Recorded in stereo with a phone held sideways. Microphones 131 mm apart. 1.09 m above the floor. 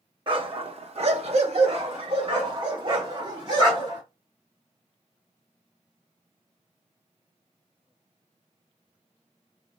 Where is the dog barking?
40° right (ahead or behind), 0.9 m; by 4.0 s 35° right (ahead or behind), 2.5 m.